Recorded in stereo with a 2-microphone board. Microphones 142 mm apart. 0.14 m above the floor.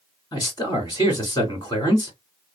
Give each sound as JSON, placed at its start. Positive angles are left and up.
{"t": 0.3, "sound": "a man speaking", "side_deg": 30, "distance_m": 1.9}